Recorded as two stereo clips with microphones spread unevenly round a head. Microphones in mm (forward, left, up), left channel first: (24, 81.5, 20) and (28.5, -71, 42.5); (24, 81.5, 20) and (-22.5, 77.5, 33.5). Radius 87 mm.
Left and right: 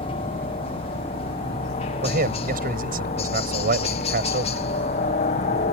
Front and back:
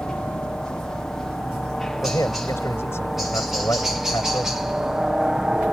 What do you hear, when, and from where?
0.0 s a helicopter: 65° left; by 5.7 s 105° left
2.0 s a man speaking: 60° right